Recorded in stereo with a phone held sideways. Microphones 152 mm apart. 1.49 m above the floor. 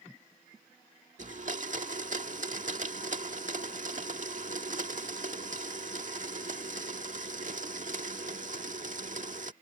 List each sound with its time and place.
1.2 s a blender: 55° right (ahead or behind)